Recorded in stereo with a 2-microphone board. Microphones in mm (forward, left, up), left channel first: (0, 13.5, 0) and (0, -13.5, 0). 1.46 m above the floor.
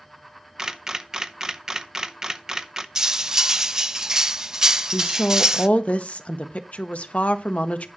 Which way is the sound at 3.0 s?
20° right (ahead or behind).